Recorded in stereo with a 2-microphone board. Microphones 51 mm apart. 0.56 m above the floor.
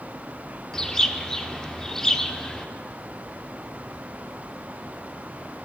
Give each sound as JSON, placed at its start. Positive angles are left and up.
{"t": 0.7, "sound": "a bird", "side_deg": 10, "distance_m": 0.7}